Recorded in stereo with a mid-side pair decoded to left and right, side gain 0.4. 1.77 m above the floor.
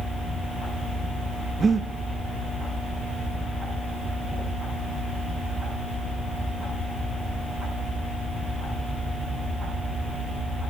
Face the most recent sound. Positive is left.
turn(degrees=-45)